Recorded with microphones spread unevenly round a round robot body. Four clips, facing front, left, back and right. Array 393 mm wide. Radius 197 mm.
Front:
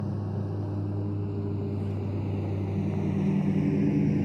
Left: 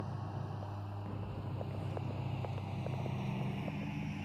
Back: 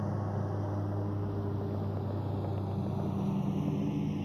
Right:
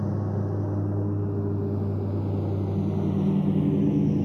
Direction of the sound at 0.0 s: 75° right.